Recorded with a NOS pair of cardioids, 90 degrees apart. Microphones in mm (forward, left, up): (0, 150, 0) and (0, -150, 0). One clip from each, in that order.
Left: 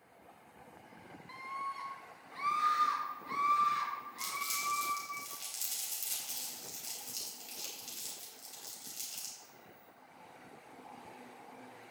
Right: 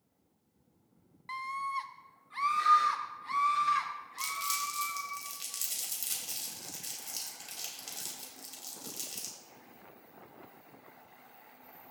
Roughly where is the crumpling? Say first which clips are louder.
Right 4 dB; ahead right.